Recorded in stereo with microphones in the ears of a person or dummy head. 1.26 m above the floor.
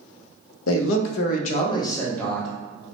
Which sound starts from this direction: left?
A man speaking, at 0.7 s.